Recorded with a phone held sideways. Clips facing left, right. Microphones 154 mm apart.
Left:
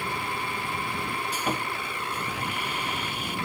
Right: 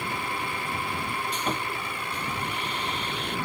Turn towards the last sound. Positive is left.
turn(degrees=5)  # may be behind; listen again after turning